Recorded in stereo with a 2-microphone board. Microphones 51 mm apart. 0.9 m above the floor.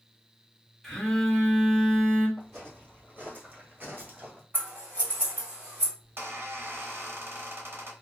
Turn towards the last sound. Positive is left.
turn(degrees=-50)  # may be behind; listen again after turning